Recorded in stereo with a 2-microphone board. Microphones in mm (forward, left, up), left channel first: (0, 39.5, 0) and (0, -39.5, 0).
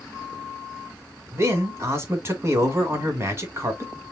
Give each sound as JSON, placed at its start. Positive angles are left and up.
{"t": 1.3, "sound": "a man speaking", "side_deg": -30, "distance_m": 1.6}